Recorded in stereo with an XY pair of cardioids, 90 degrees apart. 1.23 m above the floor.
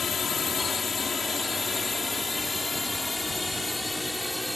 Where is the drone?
55° left; by 4.6 s 10° left.